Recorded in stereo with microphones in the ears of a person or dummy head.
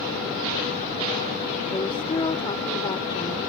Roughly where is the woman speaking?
Left.